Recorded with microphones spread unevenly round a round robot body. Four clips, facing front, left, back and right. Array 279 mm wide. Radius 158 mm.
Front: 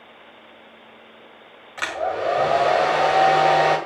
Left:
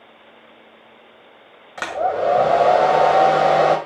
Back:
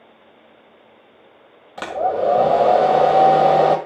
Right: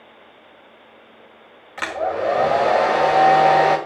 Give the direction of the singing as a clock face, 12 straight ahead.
I don't hear singing.